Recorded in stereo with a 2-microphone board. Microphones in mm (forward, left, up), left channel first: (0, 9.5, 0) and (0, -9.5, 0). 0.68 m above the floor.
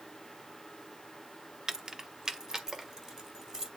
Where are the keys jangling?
30° right (ahead or behind), 0.6 m.